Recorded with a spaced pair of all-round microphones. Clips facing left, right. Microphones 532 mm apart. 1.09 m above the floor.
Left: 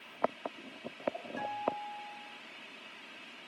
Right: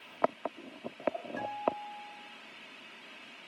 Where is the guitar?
5° left (ahead or behind), 2.5 m.